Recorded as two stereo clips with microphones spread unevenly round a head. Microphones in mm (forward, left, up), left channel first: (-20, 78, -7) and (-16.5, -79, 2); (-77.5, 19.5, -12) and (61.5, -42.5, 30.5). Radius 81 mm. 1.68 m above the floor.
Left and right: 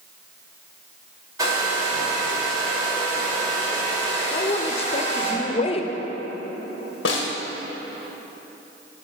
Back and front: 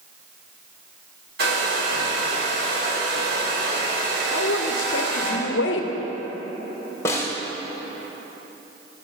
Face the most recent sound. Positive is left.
turn(degrees=80)